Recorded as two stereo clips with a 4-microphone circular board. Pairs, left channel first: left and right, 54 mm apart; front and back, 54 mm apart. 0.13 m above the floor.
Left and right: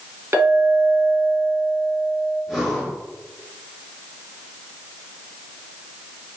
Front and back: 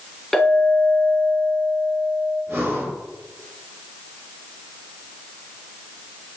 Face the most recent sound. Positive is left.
turn(degrees=175)